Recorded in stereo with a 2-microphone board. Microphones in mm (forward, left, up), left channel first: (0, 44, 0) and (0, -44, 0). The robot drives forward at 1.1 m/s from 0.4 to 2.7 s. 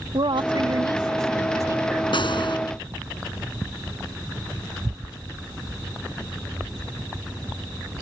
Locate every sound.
0.1 s a woman speaking: 70° right (ahead or behind); by 2.6 s 30° right (ahead or behind)
2.1 s a gunshot: 65° left (ahead or behind)